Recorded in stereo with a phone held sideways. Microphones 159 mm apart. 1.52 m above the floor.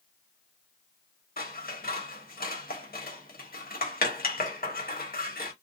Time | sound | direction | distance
1.4 | scissors | 70° left (ahead or behind) | 1.1 m